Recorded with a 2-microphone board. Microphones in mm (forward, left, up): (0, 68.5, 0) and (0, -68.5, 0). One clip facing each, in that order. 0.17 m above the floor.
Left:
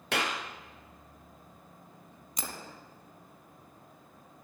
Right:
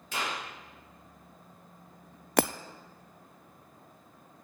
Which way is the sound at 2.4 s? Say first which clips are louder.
Right 17 dB; 70° right (ahead or behind).